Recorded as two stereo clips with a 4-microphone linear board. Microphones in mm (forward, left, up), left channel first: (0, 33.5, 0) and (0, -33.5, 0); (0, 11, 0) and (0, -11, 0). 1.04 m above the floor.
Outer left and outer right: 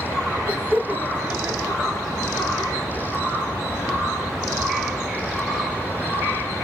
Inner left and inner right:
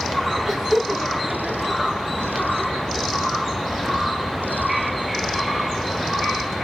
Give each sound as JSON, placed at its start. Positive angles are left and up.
{"t": 0.5, "sound": "laughter", "side_deg": -25, "distance_m": 1.3}